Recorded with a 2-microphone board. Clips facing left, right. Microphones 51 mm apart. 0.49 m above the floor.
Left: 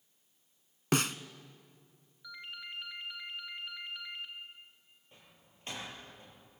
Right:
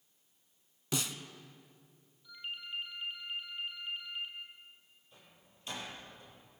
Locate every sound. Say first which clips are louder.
0.9 s a snare drum: left 7 dB; 55° left (ahead or behind), 1.0 m
2.2 s a ringtone: right 1 dB; 80° left, 3.5 m
5.1 s a door slam: even; 40° left (ahead or behind), 9 m